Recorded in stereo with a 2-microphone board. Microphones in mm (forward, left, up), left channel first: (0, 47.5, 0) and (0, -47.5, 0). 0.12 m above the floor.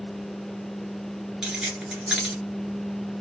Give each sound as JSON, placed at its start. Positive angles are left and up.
{"t": 1.4, "sound": "keys jangling", "side_deg": -5, "distance_m": 1.4}